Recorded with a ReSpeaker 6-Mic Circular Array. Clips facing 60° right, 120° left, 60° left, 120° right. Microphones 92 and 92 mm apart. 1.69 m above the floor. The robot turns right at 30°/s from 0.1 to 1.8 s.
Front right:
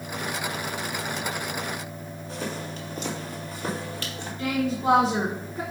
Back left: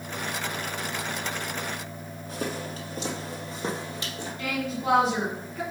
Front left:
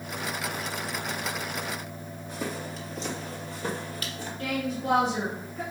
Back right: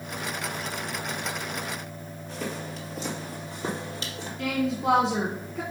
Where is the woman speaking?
135° right, 1.4 m.